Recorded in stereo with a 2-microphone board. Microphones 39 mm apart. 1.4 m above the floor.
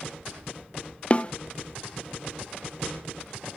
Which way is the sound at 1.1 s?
30° left (ahead or behind).